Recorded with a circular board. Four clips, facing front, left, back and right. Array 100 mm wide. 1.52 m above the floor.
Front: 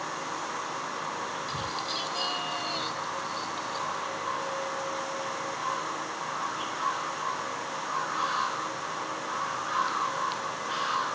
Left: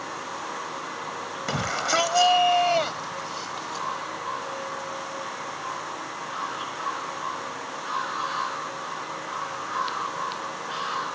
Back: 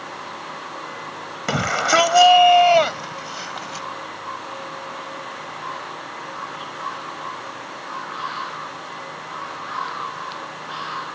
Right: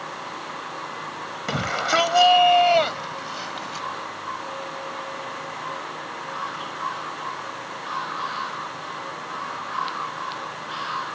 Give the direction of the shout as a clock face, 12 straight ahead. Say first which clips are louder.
Right 3 dB, back 13 dB; 6 o'clock.